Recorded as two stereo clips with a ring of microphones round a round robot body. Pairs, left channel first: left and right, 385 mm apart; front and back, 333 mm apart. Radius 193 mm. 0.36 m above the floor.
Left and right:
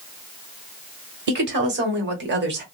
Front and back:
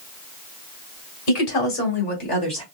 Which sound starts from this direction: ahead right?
A woman speaking, at 1.3 s.